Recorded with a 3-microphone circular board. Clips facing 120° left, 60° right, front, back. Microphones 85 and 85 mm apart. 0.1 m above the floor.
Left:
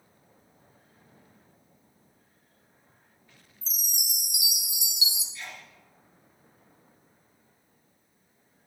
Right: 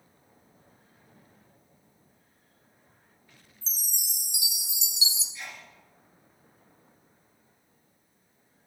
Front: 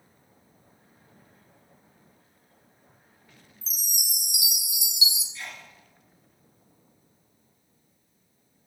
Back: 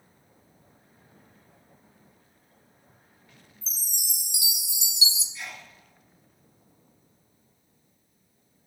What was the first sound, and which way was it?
A chime, 120° right.